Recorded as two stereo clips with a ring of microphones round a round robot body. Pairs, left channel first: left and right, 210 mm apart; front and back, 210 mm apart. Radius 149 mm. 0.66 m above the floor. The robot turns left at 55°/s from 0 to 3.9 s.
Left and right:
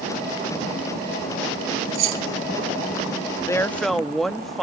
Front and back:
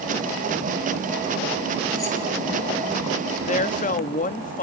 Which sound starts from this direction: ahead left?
A woman speaking, at 3.4 s.